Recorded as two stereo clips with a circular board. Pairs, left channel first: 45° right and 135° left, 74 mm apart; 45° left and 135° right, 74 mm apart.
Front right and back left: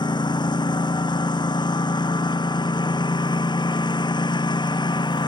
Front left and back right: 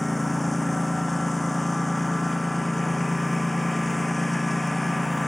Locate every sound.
0.0 s a lawn mower: 45° right